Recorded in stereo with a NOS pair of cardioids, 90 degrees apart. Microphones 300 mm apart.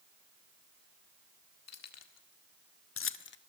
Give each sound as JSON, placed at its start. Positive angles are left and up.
{"t": 1.7, "sound": "keys jangling", "azimuth_deg": 60, "distance_m": 1.8}